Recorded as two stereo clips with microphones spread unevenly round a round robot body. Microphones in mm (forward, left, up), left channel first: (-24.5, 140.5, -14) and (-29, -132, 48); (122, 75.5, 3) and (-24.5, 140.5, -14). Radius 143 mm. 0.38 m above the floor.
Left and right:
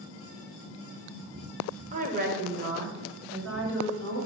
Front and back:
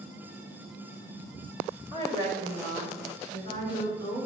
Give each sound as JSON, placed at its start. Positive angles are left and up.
{"t": 1.9, "sound": "a woman speaking", "azimuth_deg": -155, "distance_m": 1.1}